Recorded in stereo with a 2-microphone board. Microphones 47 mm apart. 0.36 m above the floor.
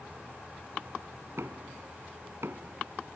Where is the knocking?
75° right (ahead or behind).